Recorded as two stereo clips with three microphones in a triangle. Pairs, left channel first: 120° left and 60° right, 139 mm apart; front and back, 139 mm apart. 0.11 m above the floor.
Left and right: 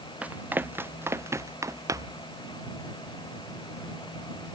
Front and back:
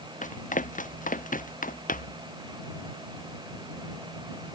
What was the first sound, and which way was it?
Running footsteps, 20° left.